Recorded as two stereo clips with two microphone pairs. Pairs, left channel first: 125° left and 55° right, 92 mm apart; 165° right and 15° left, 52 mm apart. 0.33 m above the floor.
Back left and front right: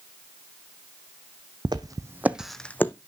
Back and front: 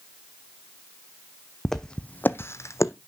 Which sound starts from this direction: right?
Footsteps, at 1.6 s.